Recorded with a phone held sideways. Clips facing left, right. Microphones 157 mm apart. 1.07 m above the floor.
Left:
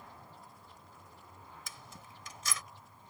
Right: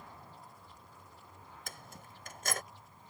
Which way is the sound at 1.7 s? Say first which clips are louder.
Right 1 dB; 55° right (ahead or behind).